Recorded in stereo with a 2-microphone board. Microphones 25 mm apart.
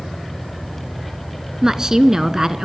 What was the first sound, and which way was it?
A woman speaking, 25° right (ahead or behind).